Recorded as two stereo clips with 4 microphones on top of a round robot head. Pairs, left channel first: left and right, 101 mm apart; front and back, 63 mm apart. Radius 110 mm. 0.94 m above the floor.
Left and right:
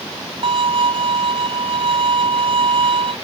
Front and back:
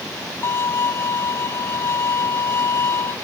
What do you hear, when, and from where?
0.4 s a violin: 60° right